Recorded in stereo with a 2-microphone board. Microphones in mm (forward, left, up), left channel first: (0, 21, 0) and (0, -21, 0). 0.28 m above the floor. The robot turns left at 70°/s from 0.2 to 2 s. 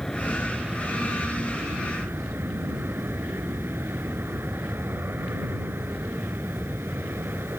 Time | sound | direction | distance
0.0 | an aircraft | 15° left | ?